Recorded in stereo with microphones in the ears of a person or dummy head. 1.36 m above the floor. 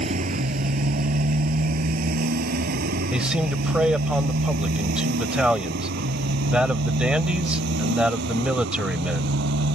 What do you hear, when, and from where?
0.0 s a motorcycle: 50° right (ahead or behind); by 9.8 s 70° right (ahead or behind)
3.1 s a man speaking: 10° right (ahead or behind)